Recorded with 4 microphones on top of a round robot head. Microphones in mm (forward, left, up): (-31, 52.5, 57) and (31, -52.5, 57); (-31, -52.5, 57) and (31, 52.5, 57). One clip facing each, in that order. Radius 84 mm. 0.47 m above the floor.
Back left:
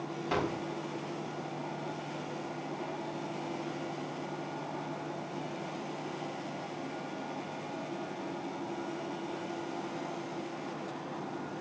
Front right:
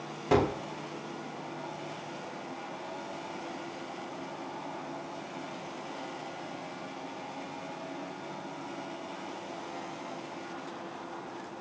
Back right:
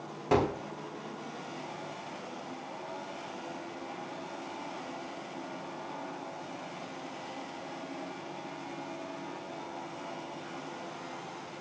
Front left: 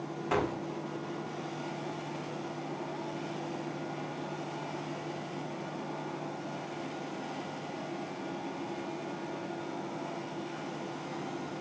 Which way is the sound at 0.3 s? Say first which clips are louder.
Front right 7 dB, back right 4 dB; 75° right.